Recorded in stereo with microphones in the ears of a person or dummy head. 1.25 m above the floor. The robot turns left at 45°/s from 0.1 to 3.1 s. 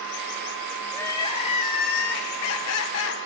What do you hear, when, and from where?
0.9 s crying: 170° left, 0.7 m; by 3.2 s 70° left, 0.7 m